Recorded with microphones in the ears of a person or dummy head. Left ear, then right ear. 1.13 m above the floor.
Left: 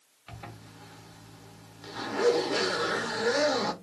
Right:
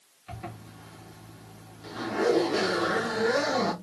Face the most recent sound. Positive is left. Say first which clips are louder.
# right 4 dB
turn(degrees=25)  # may be behind; listen again after turning